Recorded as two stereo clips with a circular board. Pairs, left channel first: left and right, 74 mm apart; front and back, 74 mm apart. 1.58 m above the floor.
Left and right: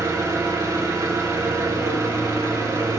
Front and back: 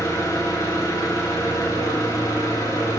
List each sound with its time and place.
0.0 s an engine running: 45° right, 2.5 m